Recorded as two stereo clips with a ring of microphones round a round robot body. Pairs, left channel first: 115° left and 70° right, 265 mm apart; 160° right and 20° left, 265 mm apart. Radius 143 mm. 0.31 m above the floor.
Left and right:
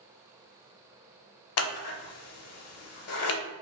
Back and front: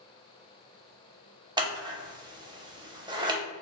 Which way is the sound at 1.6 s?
95° left.